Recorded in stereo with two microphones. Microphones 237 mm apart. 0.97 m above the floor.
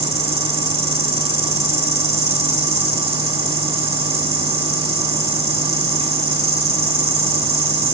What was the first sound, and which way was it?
An insect, 25° right (ahead or behind).